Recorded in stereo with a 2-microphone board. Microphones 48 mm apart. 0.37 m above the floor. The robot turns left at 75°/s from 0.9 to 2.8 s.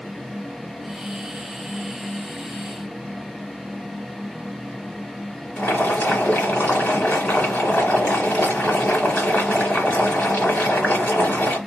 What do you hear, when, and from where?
5.6 s boiling: 35° left (ahead or behind), 2 m